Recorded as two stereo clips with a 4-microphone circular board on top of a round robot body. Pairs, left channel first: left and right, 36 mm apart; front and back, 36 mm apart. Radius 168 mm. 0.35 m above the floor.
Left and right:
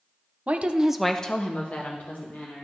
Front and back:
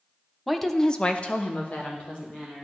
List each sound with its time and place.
0.5 s a woman speaking: 95° right, 1.1 m; by 2.7 s 50° left, 2.5 m